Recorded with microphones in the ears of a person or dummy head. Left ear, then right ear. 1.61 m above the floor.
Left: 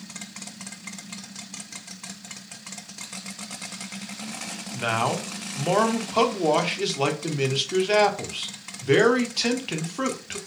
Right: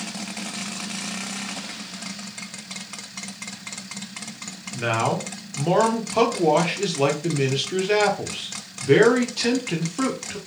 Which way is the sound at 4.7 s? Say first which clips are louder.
Right 2 dB; 15° left (ahead or behind).